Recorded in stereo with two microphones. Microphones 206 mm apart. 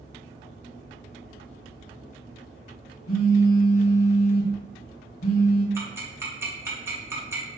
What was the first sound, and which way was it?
A phone buzzing, 85° left.